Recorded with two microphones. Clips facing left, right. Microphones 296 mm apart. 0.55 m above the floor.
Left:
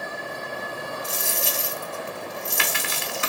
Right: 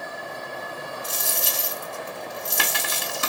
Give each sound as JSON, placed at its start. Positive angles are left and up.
{"t": 1.0, "sound": "a dropped coin", "side_deg": -45, "distance_m": 0.6}